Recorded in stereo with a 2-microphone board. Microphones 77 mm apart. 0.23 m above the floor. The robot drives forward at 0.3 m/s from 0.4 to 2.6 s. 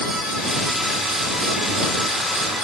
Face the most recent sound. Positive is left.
No sound to turn to.